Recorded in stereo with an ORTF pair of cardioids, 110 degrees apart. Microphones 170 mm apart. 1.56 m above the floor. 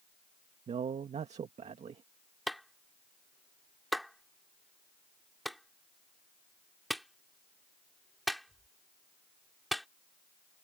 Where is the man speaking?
40° right.